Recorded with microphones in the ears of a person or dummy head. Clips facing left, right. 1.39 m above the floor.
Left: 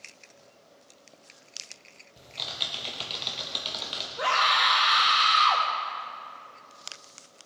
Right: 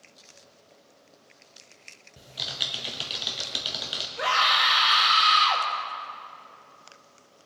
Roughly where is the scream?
Centre.